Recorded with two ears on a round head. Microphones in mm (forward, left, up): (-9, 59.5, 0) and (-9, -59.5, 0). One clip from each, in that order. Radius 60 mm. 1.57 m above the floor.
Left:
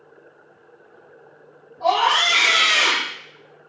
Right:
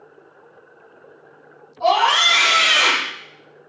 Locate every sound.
1.8 s a scream: 75° right (ahead or behind), 2 m; by 3.1 s 55° right (ahead or behind), 2 m